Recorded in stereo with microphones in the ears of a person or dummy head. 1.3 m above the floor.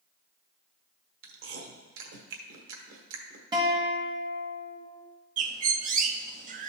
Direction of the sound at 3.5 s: 20° right (ahead or behind).